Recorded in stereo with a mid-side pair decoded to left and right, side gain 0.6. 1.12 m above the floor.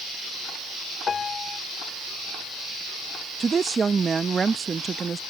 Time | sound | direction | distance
1.1 | a piano | 30° left | ?
3.4 | a woman speaking | 25° right | ?